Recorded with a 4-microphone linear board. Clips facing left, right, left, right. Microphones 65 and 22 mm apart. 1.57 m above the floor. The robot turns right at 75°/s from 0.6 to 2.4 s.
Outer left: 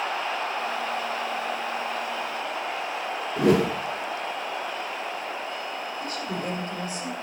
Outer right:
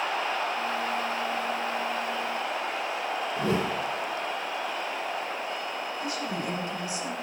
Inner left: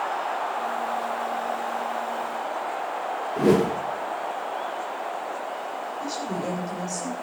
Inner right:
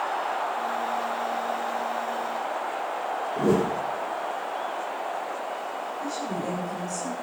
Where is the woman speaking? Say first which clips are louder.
Outer left 1 dB, inner left 1 dB; 45° left (ahead or behind), 8 m.